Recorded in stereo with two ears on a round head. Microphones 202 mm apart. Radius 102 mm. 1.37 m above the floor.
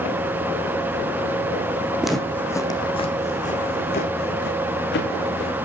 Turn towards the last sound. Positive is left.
turn(degrees=60)  # may be behind; listen again after turning